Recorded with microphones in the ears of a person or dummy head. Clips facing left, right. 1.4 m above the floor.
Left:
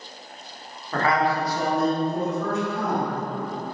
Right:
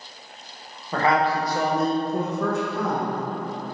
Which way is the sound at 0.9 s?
15° right (ahead or behind).